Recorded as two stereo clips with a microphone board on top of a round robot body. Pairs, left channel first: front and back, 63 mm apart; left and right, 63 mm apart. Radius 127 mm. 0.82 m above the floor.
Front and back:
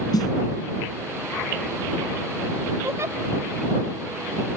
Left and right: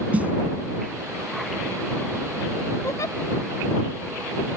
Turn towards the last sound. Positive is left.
turn(degrees=130)